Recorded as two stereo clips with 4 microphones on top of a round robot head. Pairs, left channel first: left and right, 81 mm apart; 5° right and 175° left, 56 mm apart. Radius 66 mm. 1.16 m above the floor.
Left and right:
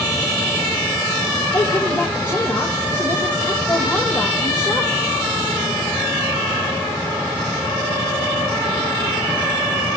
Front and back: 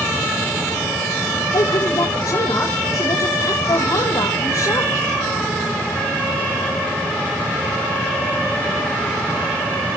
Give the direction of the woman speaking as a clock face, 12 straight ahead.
11 o'clock.